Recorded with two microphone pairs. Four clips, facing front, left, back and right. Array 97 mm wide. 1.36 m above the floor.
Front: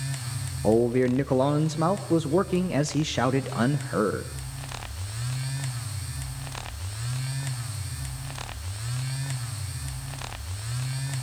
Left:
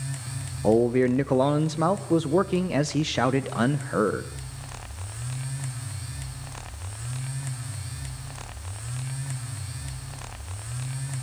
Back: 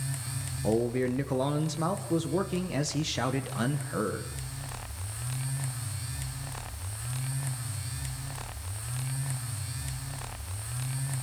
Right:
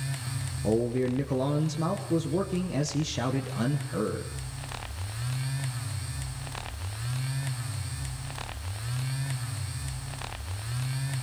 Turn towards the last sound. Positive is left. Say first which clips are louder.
# left 6 dB, front 6 dB
turn(degrees=55)